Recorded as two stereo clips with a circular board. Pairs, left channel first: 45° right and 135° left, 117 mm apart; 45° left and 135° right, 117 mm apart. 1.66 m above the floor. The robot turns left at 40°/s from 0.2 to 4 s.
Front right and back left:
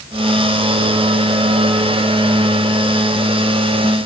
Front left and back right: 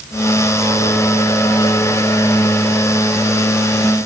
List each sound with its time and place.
Only background noise.